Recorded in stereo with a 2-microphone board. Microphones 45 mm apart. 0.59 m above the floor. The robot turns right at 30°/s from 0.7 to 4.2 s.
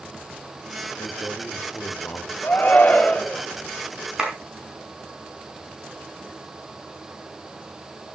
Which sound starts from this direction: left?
A man speaking, at 1.0 s.